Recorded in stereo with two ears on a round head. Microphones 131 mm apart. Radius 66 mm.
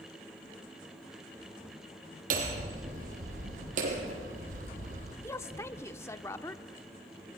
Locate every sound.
2.3 s hammering: 60° right (ahead or behind), 4 m
5.2 s a woman speaking: 15° left (ahead or behind), 0.8 m